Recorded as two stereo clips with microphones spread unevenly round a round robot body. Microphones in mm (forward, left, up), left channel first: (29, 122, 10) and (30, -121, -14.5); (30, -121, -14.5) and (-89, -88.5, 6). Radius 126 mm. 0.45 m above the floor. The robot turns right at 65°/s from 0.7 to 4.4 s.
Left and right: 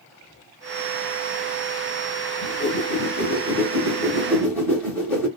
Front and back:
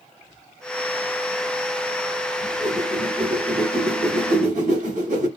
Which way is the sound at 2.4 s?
45° left.